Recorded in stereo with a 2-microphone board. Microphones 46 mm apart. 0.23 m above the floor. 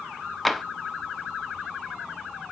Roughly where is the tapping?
Centre.